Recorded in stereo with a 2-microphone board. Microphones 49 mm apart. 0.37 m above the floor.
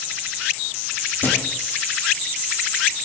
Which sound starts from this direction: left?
A thud, at 1.2 s.